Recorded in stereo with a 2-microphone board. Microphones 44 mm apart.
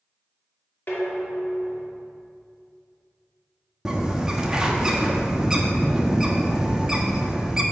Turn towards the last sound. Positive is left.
turn(degrees=-15)  # may be behind; listen again after turning